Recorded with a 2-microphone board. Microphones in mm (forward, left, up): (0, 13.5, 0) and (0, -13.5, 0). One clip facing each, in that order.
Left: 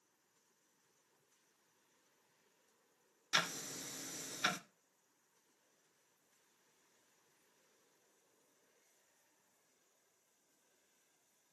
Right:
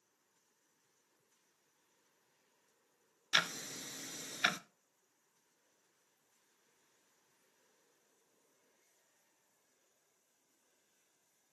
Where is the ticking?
20° right (ahead or behind), 0.6 m.